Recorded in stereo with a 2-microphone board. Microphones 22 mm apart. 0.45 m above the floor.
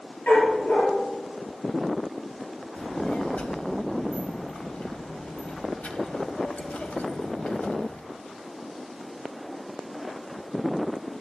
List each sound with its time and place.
0.3 s a dog barking: 75° left (ahead or behind), 4 m
2.8 s a child speaking: 70° left (ahead or behind), 1.6 m